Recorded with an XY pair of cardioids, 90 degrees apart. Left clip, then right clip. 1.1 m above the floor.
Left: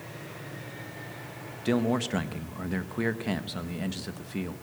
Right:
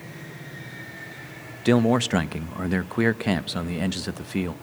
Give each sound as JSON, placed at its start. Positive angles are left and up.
{"t": 1.6, "sound": "a man speaking", "azimuth_deg": -55, "distance_m": 0.9}